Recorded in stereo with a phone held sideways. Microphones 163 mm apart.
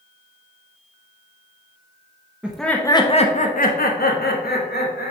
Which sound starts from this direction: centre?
Laughter, at 2.4 s.